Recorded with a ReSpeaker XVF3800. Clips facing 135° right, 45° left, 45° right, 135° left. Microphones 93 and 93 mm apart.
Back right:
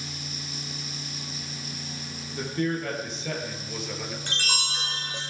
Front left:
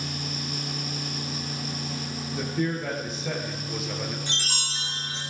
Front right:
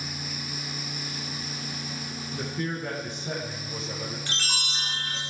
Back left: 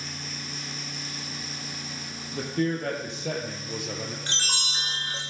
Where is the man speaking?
130° left, 5 m; by 4.2 s 125° left, 3 m.